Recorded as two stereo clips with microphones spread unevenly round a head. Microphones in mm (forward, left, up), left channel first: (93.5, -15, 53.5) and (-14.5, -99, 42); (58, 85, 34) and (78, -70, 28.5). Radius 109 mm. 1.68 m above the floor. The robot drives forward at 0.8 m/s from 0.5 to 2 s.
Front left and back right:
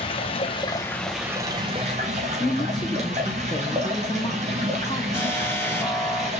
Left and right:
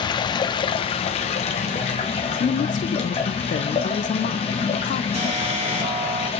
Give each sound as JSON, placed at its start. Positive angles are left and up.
{"t": 0.0, "sound": "running water", "azimuth_deg": 60, "distance_m": 0.8}
{"t": 2.4, "sound": "a woman speaking", "azimuth_deg": 100, "distance_m": 0.7}
{"t": 5.1, "sound": "an alarm", "azimuth_deg": -35, "distance_m": 4.5}